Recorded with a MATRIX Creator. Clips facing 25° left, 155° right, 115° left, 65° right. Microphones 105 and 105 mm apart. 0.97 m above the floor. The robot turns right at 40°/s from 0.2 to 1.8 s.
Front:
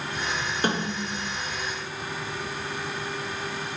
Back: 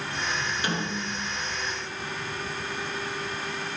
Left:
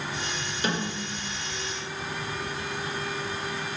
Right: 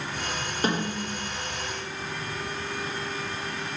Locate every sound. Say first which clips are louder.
0.6 s a snare drum: front 3 dB, right 3 dB; 25° right, 3 m; by 1.3 s straight ahead, 3 m